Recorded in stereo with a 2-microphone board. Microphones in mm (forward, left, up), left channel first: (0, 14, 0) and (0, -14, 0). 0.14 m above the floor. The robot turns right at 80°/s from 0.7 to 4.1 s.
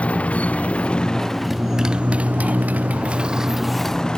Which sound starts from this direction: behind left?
A motorcycle, at 0.0 s.